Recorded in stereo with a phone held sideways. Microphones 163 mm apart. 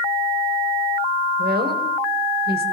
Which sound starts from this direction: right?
A woman speaking, at 1.4 s.